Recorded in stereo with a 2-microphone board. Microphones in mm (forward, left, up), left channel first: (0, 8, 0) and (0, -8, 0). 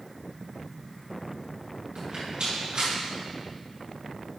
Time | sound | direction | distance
1.9 | a rattle | 70° right (ahead or behind) | 3 m